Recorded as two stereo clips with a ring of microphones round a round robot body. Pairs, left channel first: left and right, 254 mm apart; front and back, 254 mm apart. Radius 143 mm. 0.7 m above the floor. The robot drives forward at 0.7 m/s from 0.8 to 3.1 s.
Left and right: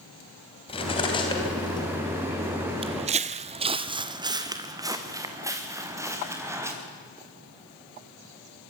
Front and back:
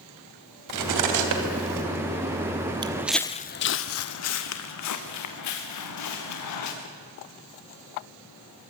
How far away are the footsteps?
About 0.7 m.